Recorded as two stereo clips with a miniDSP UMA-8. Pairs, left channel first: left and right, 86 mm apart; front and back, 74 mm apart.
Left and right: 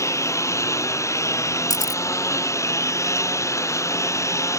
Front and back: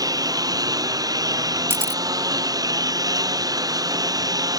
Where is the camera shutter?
125° left.